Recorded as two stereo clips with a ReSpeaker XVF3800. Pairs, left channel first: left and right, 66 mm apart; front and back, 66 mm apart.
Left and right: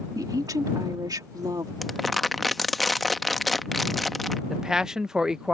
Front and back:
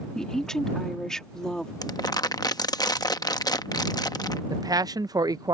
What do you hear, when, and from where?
0.1 s a woman speaking: 80° right
1.8 s crumpling: straight ahead
4.5 s a man speaking: 170° right